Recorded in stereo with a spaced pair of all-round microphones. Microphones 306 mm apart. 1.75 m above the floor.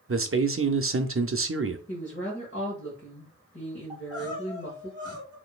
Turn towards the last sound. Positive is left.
turn(degrees=-15)  # may be behind; listen again after turning